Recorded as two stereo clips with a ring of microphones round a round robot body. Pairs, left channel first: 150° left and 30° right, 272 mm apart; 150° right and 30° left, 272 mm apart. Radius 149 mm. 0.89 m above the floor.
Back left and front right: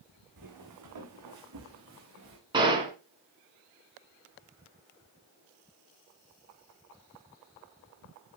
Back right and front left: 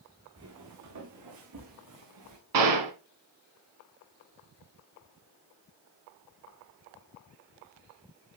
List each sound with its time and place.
0.4 s footsteps: 10° right, 3.5 m; by 2.4 s 15° left, 4.5 m
2.5 s a gunshot: 45° left, 2 m